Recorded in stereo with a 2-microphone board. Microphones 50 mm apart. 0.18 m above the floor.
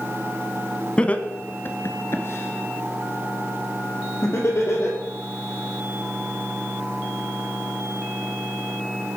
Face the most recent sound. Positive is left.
turn(degrees=60)  # may be behind; listen again after turning